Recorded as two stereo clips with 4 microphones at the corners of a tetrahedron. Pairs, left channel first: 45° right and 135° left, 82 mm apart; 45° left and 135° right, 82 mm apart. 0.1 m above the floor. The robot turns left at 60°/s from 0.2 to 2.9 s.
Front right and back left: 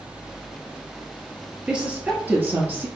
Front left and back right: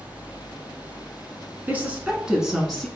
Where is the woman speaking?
165° right, 1.1 m; by 2.9 s 125° left, 1.1 m.